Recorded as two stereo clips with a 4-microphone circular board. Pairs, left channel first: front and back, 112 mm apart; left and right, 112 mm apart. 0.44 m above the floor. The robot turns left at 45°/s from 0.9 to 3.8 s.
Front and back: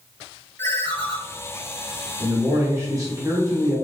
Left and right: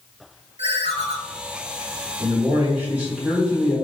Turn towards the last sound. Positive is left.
turn(degrees=165)